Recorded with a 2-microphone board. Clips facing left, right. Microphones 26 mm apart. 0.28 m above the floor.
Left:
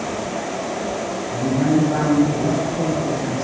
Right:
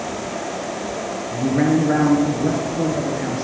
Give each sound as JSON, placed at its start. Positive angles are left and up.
{"t": 1.3, "sound": "a man speaking", "side_deg": -75, "distance_m": 4.0}